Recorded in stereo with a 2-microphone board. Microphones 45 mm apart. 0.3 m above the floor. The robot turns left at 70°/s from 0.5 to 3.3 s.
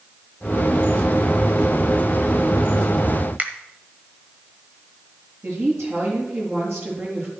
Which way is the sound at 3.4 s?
35° right (ahead or behind).